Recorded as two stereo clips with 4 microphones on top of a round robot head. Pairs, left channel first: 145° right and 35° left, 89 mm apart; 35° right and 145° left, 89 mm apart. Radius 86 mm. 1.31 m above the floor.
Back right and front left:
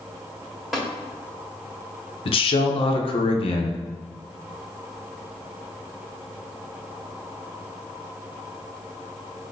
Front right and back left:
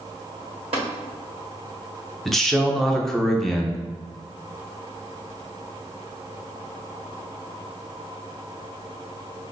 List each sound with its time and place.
0.7 s tapping: 125° left, 1.3 m
2.2 s a man speaking: 120° right, 0.7 m